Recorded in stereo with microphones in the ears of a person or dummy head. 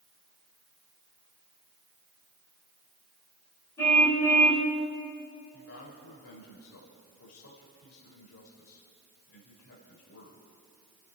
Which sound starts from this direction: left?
A man speaking, at 5.5 s.